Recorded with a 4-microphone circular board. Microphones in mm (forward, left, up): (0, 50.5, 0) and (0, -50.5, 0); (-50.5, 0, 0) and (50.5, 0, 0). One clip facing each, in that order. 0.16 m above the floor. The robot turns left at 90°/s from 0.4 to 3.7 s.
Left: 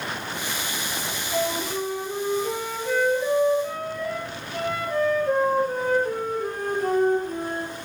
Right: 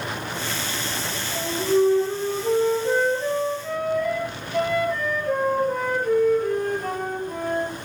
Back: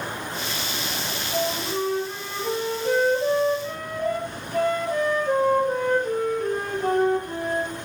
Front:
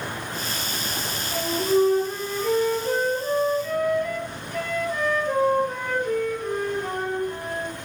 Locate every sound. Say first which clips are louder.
1.3 s a flute: right 5 dB, front 5 dB; 10° right, 3.5 m; by 7.7 s 135° left, 3.5 m